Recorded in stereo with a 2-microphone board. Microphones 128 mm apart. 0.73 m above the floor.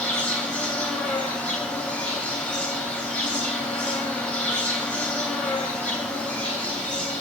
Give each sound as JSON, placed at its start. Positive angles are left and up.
{"t": 0.0, "sound": "an insect", "side_deg": 10, "distance_m": 3.0}